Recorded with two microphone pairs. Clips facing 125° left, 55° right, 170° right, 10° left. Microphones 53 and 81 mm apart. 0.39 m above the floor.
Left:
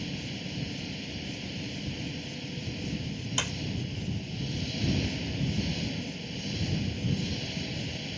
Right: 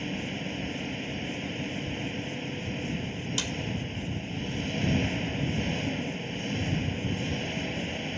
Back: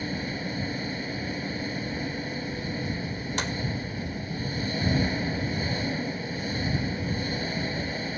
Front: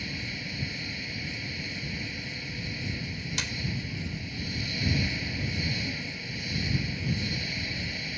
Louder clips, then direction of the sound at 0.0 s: Right 4 dB, back 6 dB; 120° right.